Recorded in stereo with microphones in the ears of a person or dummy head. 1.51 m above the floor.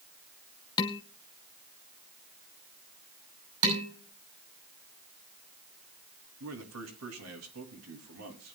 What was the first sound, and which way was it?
Dishes clattering, 15° left (ahead or behind).